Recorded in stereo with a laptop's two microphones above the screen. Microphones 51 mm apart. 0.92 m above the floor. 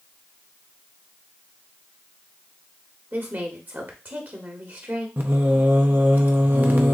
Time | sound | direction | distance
3.1 | a woman speaking | 40° right (ahead or behind) | 1.1 m
5.2 | singing | 35° right (ahead or behind) | 0.5 m